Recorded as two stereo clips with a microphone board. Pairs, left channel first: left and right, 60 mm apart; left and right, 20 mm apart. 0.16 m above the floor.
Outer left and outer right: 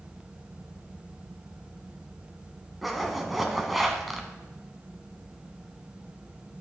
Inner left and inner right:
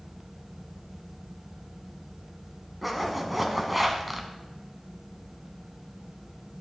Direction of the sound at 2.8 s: Centre (ahead or behind).